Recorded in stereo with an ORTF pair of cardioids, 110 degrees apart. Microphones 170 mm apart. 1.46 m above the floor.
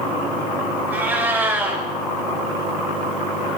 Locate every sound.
0.9 s a cat meowing: 10° right, 3.5 m